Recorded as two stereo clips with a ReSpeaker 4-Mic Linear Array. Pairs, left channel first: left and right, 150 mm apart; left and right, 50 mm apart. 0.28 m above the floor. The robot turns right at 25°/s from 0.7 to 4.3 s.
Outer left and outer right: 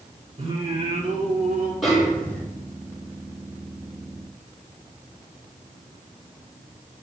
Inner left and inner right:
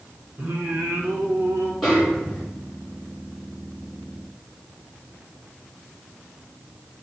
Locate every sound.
0.4 s singing: 45° right (ahead or behind), 2.5 m; by 1.7 s 65° right (ahead or behind), 2.5 m
1.8 s a snare drum: centre (ahead or behind), 4.5 m; by 2.4 s 15° left (ahead or behind), 4.5 m